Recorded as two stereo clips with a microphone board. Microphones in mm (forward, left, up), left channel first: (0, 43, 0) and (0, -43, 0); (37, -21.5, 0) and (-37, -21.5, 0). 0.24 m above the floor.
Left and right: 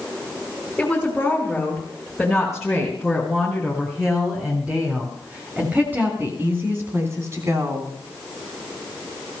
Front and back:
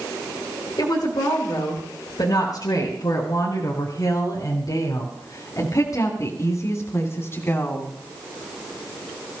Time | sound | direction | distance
0.8 | a woman speaking | 5° left | 4.5 m